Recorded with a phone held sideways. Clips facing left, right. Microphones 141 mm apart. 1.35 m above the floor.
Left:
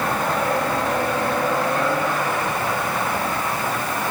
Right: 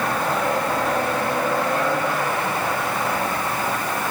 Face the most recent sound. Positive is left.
No sound to turn to.